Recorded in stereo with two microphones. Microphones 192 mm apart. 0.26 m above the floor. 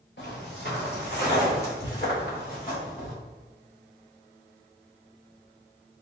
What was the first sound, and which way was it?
Footsteps, 70° left (ahead or behind).